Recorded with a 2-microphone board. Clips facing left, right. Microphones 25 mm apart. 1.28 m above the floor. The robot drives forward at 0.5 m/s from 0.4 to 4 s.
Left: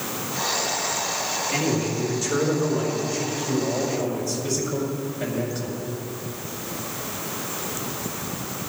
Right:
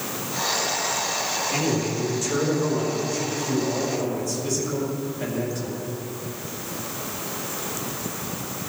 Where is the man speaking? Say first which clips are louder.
Left 2 dB; 20° left (ahead or behind), 5 m; by 5.7 s 15° left (ahead or behind), 6 m.